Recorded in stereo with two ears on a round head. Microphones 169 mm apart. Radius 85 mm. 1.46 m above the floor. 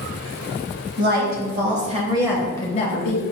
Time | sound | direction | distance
1.0 | a woman speaking | 50° right (ahead or behind) | 1.4 m